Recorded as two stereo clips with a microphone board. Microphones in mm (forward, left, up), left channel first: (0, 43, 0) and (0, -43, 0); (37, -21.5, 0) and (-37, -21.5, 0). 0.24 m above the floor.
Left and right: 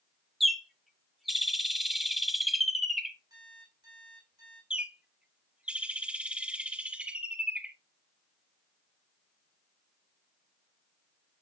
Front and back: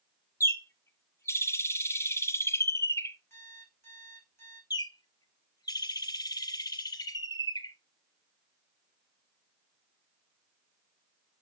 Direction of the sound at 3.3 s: 50° right.